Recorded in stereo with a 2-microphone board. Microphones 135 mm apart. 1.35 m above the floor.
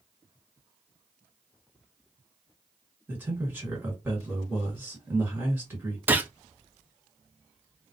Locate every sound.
3.1 s a man speaking: 15° right (ahead or behind), 2 m
6.1 s a gunshot: 15° right (ahead or behind), 0.5 m